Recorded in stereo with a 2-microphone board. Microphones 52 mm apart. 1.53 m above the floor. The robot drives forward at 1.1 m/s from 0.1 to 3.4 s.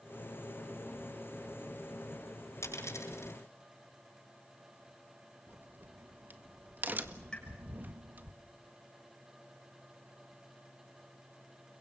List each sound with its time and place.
2.6 s a dropped coin: 75° left (ahead or behind), 8 m; by 3.3 s 70° left (ahead or behind), 8 m
5.5 s a crack: 40° right (ahead or behind), 1.6 m
7.3 s a pop: 15° left (ahead or behind), 6.5 m